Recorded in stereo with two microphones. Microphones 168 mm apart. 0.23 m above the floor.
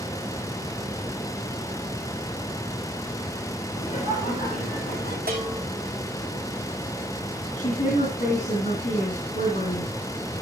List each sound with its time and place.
3.7 s laughter: 50° left (ahead or behind), 9.5 m; by 5.2 s 40° left (ahead or behind), 10.5 m
5.3 s a bell: 75° right (ahead or behind), 5.5 m
7.6 s a woman speaking: 50° left (ahead or behind), 3 m